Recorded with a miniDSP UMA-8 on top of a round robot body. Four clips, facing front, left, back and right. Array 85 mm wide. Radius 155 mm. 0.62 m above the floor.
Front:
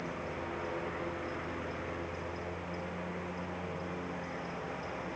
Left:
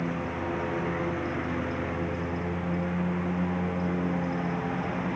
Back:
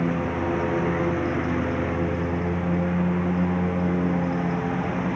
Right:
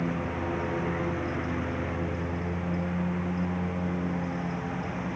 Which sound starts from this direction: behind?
A lawn mower, at 0.0 s.